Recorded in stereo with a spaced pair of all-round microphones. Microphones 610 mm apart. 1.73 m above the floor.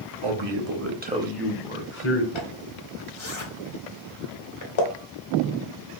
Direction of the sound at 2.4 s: 50° left (ahead or behind).